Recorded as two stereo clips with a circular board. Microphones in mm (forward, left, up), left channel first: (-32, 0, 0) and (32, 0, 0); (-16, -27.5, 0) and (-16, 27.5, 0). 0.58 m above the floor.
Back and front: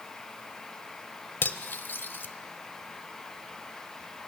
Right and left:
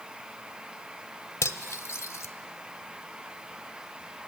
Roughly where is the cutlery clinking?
Behind right.